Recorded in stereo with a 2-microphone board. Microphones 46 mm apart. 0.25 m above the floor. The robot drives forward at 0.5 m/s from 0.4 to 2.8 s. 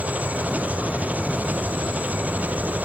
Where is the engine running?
30° right (ahead or behind); by 2.9 s 35° right (ahead or behind).